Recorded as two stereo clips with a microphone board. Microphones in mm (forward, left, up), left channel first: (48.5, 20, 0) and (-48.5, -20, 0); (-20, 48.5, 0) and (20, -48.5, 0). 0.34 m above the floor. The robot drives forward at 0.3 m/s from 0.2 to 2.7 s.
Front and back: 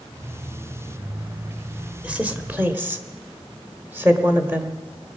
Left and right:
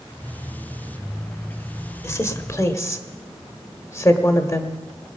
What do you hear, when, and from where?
2.0 s a woman speaking: 140° left, 1.1 m; by 4.8 s 150° left, 1.2 m